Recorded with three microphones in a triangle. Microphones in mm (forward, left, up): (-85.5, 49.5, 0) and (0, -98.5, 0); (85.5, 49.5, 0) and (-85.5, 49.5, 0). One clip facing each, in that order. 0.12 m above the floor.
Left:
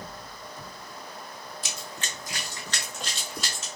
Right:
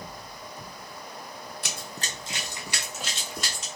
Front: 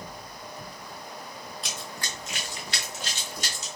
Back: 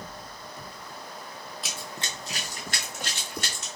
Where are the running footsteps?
90° right, 0.6 m; by 3.7 s 155° right, 1.5 m.